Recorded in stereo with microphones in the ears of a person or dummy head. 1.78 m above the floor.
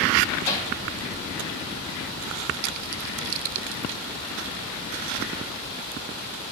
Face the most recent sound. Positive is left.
turn(degrees=15)  # may be behind; listen again after turning